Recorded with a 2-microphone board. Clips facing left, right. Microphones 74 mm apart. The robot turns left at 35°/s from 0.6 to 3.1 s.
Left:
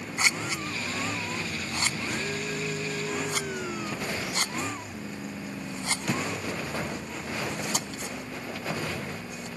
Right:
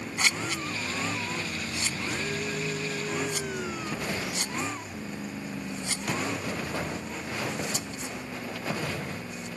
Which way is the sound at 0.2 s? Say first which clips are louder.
Left 1 dB; 15° left (ahead or behind).